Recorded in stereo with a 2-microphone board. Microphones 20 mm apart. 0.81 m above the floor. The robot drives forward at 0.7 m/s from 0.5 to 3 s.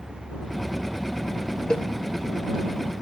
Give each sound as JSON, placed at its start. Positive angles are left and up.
{"t": 1.7, "sound": "a cowbell", "side_deg": 55, "distance_m": 0.7}